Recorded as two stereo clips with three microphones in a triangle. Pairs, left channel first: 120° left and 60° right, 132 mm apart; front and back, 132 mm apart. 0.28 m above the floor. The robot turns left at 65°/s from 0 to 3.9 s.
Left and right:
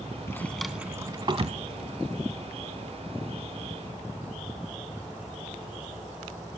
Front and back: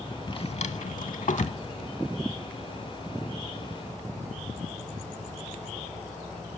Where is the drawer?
55° left, 0.6 m; by 1.6 s 35° right, 0.6 m.